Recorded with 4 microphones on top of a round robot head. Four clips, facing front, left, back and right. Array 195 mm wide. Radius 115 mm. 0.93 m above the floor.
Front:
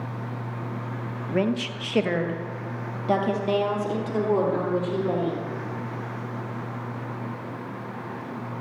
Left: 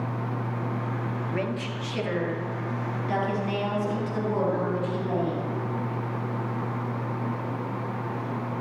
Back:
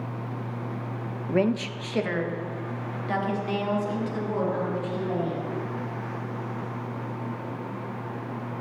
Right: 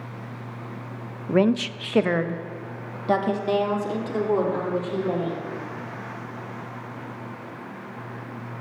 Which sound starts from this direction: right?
A woman speaking, at 1.3 s.